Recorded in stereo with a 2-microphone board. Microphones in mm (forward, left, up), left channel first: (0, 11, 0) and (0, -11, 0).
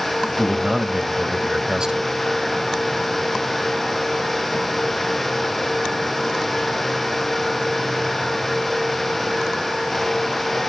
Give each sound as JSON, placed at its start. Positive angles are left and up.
{"t": 0.4, "sound": "a man speaking", "side_deg": -40, "distance_m": 1.3}